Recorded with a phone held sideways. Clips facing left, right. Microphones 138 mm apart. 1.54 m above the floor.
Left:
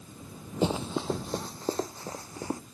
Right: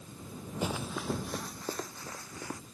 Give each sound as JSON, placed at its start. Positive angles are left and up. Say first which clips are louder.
{"t": 0.6, "sound": "running footsteps", "louder": "left 7 dB", "side_deg": 30}